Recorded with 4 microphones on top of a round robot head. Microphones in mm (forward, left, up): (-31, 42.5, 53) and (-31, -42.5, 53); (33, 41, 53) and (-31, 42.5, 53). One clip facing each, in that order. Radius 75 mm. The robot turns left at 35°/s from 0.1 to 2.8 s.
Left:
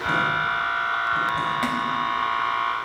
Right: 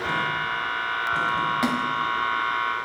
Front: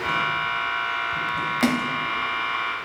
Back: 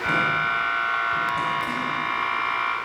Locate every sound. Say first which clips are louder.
1.6 s a splash: even, front 4 dB; 15° right, 1.0 m; by 2.0 s 30° right, 1.0 m